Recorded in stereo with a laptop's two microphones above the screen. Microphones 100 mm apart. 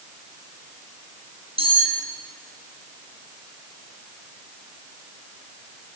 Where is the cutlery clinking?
70° right (ahead or behind), 5 m.